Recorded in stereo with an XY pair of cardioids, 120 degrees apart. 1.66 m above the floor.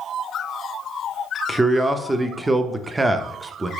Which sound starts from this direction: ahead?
A man speaking, at 1.5 s.